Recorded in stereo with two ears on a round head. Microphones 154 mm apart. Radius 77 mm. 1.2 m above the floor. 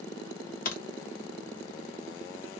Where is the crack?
55° left (ahead or behind), 1.1 m.